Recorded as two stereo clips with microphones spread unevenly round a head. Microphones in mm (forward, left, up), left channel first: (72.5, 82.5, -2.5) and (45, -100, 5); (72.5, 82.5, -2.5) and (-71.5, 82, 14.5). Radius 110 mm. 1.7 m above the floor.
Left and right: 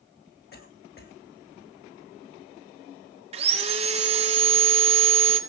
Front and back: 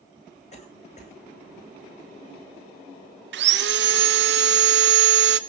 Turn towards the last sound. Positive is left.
turn(degrees=-165)